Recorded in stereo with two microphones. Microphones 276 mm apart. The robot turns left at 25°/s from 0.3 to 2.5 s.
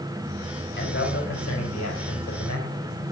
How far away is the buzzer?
No buzzer in this recording.